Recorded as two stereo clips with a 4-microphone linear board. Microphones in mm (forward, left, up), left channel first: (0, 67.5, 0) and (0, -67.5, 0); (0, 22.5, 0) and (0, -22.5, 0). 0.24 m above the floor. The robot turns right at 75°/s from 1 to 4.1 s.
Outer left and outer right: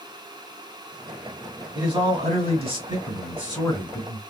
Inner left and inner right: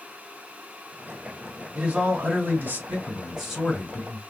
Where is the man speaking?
140° right, 2 m; by 4.2 s 40° left, 2 m.